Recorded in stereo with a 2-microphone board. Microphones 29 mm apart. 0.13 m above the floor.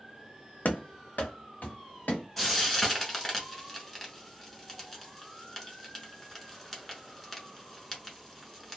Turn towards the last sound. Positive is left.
turn(degrees=10)  # may be behind; listen again after turning